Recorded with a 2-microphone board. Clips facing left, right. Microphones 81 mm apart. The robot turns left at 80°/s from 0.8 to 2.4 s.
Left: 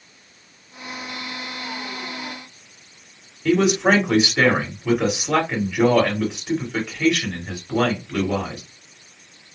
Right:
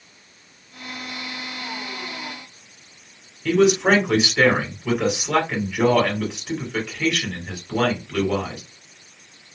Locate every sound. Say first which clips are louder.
3.5 s a man speaking: right 1 dB; 10° left (ahead or behind), 1.7 m